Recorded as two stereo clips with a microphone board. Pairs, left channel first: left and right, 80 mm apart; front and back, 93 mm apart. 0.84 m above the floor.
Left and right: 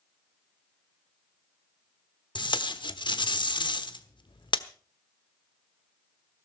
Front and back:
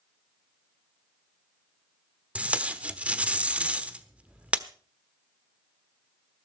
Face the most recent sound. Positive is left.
turn(degrees=105)